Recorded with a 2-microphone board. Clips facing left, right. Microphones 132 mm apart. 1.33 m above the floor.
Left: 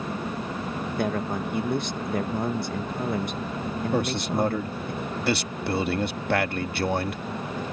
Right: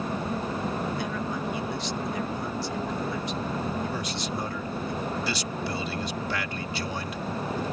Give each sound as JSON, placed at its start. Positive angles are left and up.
{"t": 1.0, "sound": "a man speaking", "side_deg": 50}
{"t": 3.9, "sound": "a man speaking", "side_deg": 60}